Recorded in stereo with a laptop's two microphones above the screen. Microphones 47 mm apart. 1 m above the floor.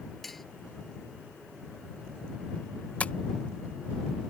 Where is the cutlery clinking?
5° left (ahead or behind).